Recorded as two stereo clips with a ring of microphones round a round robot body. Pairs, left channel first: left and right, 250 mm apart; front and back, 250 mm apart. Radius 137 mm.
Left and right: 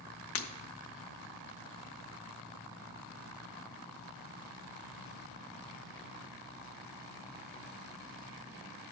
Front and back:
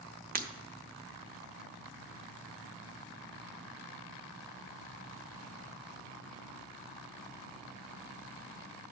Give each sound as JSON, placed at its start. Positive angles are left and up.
{"t": 0.3, "sound": "breaking glass", "azimuth_deg": 125, "distance_m": 0.9}